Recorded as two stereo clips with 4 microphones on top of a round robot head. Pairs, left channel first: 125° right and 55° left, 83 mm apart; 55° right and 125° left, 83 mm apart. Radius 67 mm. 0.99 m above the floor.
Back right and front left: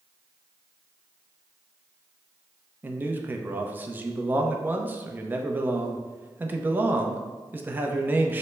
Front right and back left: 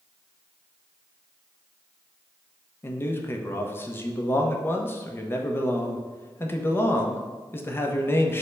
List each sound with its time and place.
2.8 s a man speaking: 5° right, 0.6 m